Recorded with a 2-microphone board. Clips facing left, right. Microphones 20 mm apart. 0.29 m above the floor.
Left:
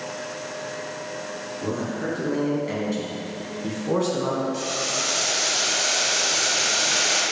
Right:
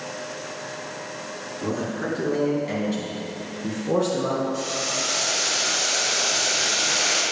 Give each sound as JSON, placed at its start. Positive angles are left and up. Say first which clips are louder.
{"t": 1.6, "sound": "a man speaking", "louder": "right 1 dB", "side_deg": -15, "distance_m": 3.0}
{"t": 4.5, "sound": "boiling", "louder": "even", "side_deg": 15, "distance_m": 2.0}